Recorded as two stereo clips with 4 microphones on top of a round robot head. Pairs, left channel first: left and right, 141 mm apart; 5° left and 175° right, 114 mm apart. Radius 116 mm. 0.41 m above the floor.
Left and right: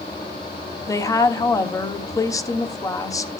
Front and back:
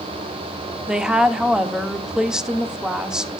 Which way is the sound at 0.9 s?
110° left.